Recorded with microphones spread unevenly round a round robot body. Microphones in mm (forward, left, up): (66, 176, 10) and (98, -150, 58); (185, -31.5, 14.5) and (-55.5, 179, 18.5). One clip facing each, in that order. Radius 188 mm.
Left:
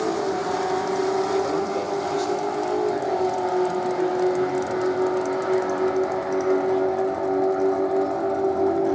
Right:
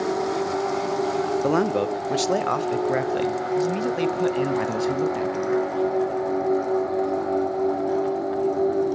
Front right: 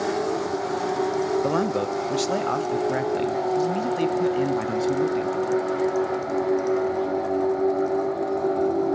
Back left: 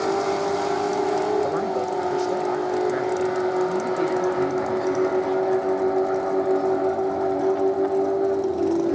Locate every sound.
1.4 s a man speaking: 75° right, 1.5 m; by 5.6 s 95° right, 4 m